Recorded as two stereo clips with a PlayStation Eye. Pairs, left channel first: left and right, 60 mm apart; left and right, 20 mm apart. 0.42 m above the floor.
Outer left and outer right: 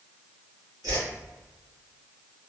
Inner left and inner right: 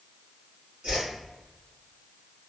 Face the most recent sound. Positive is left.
turn(degrees=-80)